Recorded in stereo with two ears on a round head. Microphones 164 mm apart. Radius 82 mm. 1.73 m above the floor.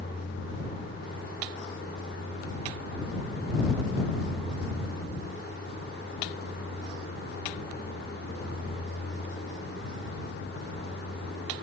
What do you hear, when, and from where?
0.0 s a vehicle: 50° left (ahead or behind); by 11.6 s 65° left (ahead or behind)